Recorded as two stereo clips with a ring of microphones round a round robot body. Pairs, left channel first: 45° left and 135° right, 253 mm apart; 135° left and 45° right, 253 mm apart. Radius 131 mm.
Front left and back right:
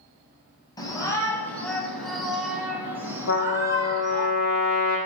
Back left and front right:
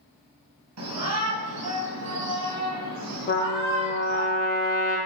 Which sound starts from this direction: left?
A trumpet, at 3.3 s.